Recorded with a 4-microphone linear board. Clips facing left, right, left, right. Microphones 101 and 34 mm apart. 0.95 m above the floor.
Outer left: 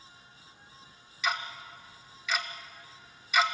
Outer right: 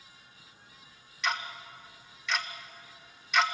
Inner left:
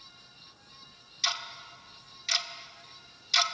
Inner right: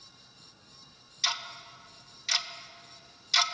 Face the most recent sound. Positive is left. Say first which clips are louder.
# even, even
turn(degrees=5)  # may be behind; listen again after turning